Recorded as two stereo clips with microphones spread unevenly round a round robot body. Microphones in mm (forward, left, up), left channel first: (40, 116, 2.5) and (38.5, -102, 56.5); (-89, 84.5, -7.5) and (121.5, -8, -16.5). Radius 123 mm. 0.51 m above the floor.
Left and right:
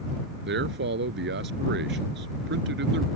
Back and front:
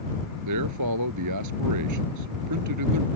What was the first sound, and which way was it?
A man speaking, 50° right.